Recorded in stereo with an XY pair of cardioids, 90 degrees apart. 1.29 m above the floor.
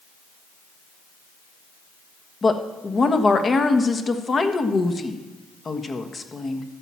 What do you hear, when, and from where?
2.4 s a woman speaking: 40° left, 1.4 m